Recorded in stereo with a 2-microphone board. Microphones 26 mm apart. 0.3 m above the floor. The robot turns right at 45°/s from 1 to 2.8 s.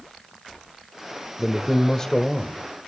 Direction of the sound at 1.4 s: 10° left (ahead or behind).